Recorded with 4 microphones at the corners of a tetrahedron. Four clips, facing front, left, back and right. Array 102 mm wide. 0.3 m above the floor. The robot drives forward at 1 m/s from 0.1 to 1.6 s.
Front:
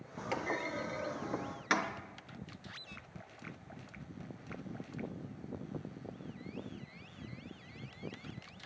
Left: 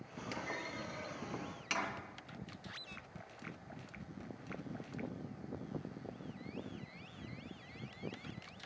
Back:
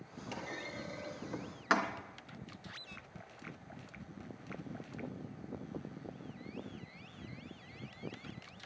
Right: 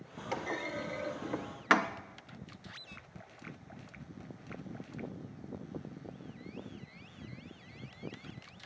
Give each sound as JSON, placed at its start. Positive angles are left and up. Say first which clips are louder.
{"t": 0.3, "sound": "a clunk", "louder": "right 7 dB, front 7 dB", "azimuth_deg": -35, "distance_m": 1.4}